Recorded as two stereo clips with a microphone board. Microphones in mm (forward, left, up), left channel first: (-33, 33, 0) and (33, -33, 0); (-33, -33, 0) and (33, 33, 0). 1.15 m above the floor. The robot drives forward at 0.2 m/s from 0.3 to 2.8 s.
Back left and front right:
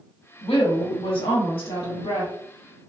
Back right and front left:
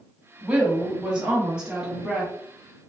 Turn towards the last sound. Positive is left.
turn(degrees=135)